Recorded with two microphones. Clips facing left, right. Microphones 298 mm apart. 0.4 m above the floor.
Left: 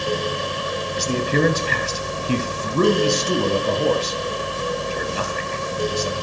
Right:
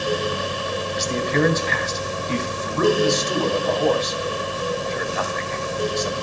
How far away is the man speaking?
About 2.5 m.